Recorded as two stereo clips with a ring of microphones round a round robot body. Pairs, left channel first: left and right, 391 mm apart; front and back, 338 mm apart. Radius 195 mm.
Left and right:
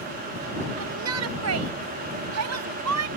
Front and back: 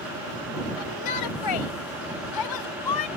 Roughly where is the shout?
Ahead right.